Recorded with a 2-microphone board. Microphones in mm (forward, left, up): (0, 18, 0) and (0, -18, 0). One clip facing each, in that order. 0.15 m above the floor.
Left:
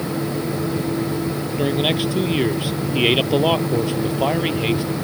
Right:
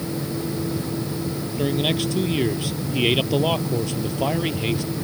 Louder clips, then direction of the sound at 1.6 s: Left 2 dB; 20° left (ahead or behind).